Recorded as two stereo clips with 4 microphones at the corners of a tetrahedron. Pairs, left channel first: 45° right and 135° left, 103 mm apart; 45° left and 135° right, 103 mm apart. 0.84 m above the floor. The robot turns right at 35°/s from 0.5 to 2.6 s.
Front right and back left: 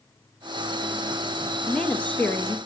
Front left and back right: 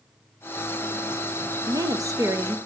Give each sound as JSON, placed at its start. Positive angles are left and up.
{"t": 1.7, "sound": "a woman speaking", "azimuth_deg": -120, "distance_m": 0.6}